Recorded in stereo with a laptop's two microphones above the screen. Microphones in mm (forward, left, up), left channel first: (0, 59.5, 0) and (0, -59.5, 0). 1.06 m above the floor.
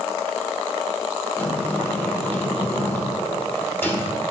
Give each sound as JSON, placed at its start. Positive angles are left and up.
{"t": 1.4, "sound": "a sliding door", "side_deg": 15, "distance_m": 1.3}